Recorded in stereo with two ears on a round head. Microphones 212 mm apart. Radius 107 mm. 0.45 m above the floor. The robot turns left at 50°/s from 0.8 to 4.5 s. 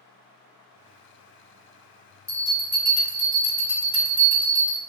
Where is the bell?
70° left, 2.0 m; by 4.8 s 40° right, 2.0 m.